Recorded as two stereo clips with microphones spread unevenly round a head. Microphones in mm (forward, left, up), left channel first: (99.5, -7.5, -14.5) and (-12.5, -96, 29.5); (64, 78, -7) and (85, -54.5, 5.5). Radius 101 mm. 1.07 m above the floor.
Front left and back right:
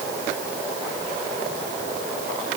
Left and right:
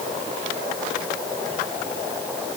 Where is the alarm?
I don't hear an alarm.